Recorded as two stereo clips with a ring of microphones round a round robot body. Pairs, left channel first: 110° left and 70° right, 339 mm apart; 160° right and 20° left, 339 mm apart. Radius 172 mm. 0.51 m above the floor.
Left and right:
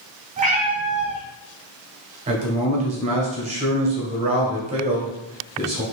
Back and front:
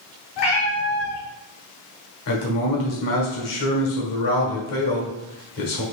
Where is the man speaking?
135° right, 1.6 m.